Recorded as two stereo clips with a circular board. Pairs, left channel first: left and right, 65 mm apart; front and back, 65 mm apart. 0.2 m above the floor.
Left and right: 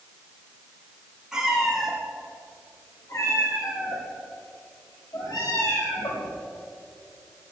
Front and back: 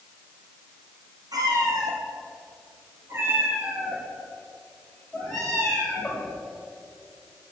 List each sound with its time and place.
1.3 s a cat meowing: 170° right, 3 m; by 6.3 s 75° left, 5.5 m